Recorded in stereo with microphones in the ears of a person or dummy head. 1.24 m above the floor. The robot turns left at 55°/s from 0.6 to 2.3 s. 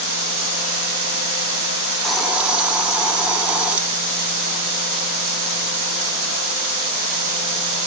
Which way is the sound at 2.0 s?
5° left (ahead or behind).